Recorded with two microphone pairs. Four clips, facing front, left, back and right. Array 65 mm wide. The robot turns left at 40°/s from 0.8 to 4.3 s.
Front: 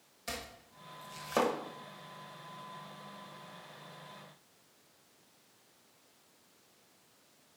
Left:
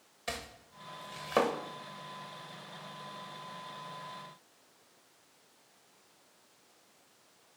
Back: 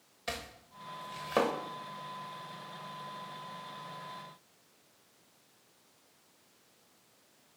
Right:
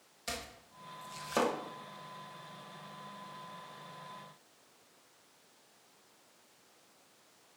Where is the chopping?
130° left, 0.9 m; by 1.5 s 100° left, 0.9 m.